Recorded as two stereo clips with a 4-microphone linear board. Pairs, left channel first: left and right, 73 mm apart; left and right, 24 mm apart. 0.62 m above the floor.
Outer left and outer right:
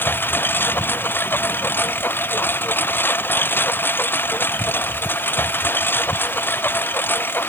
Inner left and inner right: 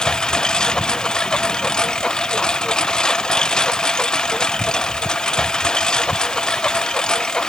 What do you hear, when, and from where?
0.0 s a lawn mower: 30° left (ahead or behind)